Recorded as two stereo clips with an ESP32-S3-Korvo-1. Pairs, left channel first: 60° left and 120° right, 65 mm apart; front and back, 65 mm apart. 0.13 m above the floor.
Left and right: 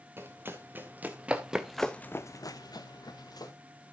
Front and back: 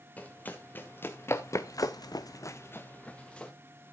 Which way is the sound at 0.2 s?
65° right.